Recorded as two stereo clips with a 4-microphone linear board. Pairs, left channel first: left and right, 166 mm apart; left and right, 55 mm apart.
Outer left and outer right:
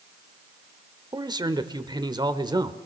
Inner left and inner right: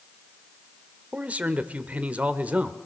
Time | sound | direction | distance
1.1 | a man speaking | 25° right (ahead or behind) | 1.2 m